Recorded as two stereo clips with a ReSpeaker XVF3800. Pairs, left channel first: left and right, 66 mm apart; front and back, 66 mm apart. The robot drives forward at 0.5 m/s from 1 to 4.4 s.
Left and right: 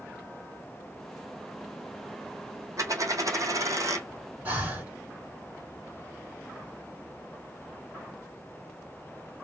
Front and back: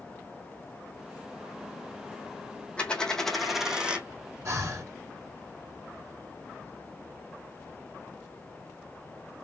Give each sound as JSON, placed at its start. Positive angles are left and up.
{"t": 2.8, "sound": "a dropped coin", "azimuth_deg": -70, "distance_m": 1.1}
{"t": 4.5, "sound": "breathing", "azimuth_deg": -150, "distance_m": 1.9}